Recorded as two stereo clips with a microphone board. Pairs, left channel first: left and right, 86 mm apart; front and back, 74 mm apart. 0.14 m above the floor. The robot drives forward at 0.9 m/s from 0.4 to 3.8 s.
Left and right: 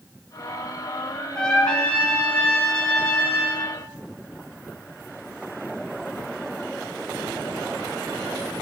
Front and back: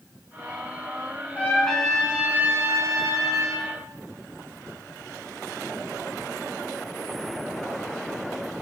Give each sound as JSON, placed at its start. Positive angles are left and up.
{"t": 1.4, "sound": "a trumpet", "azimuth_deg": 20, "distance_m": 1.0}